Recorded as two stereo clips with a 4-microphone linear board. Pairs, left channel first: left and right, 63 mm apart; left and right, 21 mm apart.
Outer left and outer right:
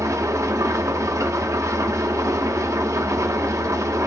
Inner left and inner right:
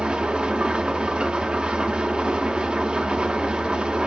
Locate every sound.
0.0 s an engine running: 60° right (ahead or behind), 0.7 m